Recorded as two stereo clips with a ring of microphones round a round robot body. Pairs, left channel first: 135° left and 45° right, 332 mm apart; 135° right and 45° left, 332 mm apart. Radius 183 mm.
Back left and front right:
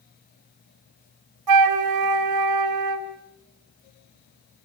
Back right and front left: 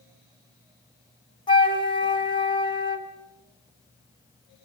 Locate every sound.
1.5 s a flute: 60° right, 3.5 m